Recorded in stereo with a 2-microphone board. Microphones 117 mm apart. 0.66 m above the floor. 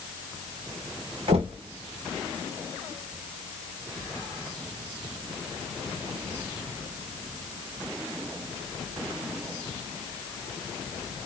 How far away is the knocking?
About 2 m.